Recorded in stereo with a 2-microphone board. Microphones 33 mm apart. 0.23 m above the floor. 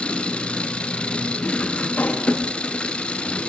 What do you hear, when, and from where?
0.0 s an engine running: 35° left (ahead or behind), 1.1 m
2.0 s a pop: 60° left (ahead or behind), 2.5 m